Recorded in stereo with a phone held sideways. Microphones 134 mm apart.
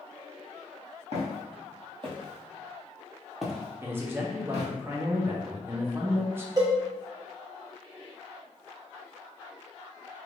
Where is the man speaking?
15° right (ahead or behind), 0.6 m.